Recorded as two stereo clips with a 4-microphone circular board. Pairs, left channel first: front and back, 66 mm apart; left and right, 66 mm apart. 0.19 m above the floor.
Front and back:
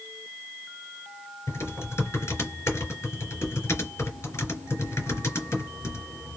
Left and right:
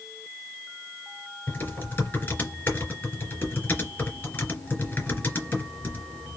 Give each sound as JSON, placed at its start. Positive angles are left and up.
{"t": 1.5, "sound": "typing on a keyboard", "azimuth_deg": 40, "distance_m": 2.5}